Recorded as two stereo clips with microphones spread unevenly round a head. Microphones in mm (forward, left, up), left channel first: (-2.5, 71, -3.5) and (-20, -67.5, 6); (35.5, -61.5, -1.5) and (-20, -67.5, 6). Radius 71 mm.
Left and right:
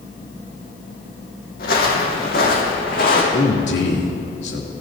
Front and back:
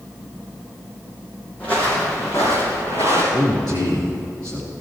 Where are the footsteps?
85° left, 3.5 m; by 3.2 s 50° left, 4.5 m.